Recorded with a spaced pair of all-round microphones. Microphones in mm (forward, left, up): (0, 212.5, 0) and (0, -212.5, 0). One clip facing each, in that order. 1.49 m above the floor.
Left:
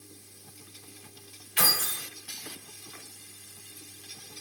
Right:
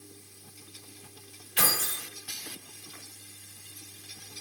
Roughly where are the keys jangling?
Right.